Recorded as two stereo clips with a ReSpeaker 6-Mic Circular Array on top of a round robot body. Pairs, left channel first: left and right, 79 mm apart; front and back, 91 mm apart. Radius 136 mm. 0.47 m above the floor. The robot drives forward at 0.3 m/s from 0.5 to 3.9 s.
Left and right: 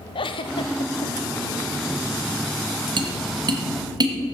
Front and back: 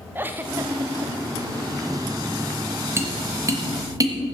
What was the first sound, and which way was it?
A giggle, 110° left.